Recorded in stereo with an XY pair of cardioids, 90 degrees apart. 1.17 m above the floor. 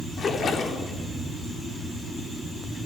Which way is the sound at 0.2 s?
55° left.